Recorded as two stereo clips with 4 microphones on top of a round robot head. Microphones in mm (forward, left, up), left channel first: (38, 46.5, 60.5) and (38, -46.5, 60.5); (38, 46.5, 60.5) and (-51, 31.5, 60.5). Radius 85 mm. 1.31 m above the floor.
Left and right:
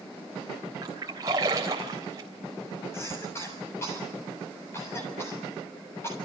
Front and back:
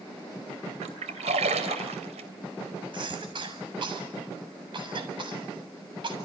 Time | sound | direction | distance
0.8 | a splash | 155° right | 3 m
2.9 | a cough | 155° left | 7.5 m